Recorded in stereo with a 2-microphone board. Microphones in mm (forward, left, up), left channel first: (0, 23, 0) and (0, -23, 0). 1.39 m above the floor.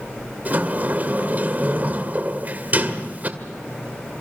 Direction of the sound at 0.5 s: 40° right (ahead or behind).